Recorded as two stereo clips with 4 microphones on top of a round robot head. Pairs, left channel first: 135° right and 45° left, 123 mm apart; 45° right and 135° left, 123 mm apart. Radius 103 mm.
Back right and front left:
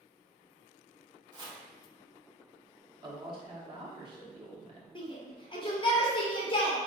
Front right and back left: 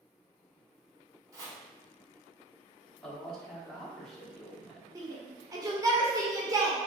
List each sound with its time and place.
1.3 s chopping: 80° left, 1.8 m
3.0 s a man speaking: 40° left, 1.1 m
5.0 s a shout: 170° right, 1.2 m